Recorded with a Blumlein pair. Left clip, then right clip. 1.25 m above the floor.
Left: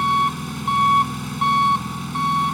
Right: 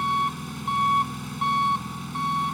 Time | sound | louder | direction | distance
0.0 | an engine running | left 6 dB | 15° left | ?